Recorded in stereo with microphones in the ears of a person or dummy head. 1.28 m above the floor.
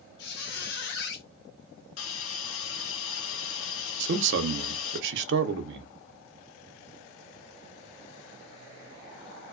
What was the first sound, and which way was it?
A squeak, 65° left (ahead or behind).